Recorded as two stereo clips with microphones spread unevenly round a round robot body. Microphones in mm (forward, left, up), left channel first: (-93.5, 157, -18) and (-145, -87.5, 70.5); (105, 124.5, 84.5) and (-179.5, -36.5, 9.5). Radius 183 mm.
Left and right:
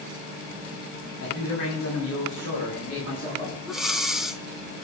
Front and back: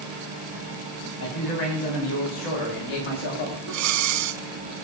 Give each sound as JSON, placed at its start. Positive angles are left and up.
{"t": 1.2, "sound": "a man speaking", "azimuth_deg": 50, "distance_m": 6.0}
{"t": 3.7, "sound": "breathing", "azimuth_deg": 170, "distance_m": 0.8}